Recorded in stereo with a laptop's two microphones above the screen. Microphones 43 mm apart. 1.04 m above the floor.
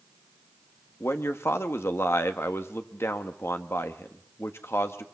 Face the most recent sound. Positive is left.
turn(degrees=80)